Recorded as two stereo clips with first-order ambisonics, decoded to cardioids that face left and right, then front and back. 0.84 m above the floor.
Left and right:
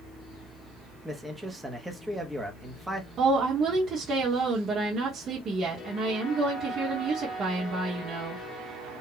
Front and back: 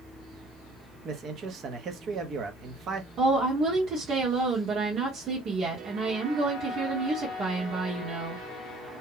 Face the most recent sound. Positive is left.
turn(degrees=-140)